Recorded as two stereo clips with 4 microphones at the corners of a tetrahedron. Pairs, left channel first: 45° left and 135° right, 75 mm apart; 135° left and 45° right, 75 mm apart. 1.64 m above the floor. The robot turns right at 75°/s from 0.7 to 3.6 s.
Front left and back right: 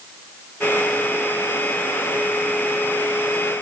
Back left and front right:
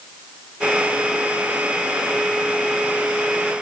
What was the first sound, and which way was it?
Only background noise.